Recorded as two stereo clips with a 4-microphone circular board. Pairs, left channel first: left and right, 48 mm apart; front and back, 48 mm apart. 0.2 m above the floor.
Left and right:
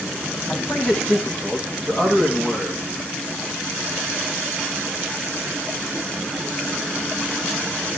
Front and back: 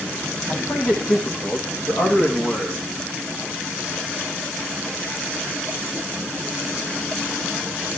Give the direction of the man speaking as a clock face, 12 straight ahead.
12 o'clock.